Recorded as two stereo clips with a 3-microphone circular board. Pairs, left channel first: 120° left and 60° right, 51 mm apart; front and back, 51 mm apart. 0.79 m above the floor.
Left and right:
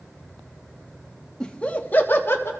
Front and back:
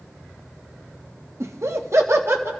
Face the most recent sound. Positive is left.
turn(degrees=150)